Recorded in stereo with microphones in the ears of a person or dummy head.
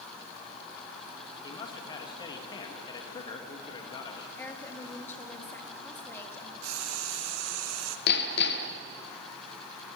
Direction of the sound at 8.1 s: 65° left (ahead or behind).